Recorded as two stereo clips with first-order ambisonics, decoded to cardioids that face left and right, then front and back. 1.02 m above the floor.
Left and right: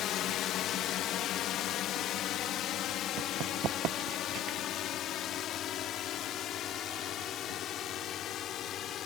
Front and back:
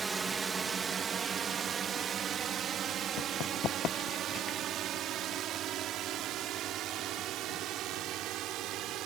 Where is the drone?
110° left; by 9.1 s 140° left.